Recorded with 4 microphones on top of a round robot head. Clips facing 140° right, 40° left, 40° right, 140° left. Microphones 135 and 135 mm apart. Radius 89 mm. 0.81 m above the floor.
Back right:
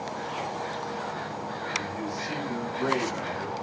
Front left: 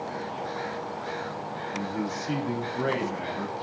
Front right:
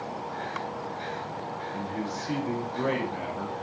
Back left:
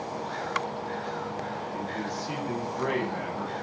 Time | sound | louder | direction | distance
1.7 | a man speaking | front left 2 dB, front right 2 dB | 15° left | 7.5 m